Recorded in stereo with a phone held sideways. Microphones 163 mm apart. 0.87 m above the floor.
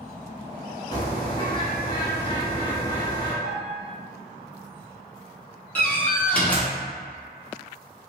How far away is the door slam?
About 0.9 m.